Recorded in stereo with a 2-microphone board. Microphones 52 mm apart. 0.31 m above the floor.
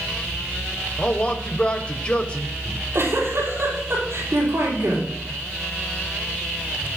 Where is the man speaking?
25° left (ahead or behind), 0.9 m.